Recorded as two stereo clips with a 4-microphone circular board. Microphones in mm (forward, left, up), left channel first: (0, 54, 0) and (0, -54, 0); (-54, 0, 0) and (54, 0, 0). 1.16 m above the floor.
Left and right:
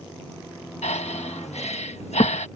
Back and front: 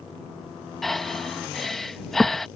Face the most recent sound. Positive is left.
turn(degrees=90)